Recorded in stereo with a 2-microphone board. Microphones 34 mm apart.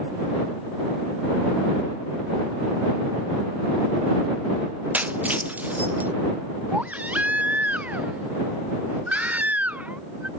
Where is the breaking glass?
50° right (ahead or behind).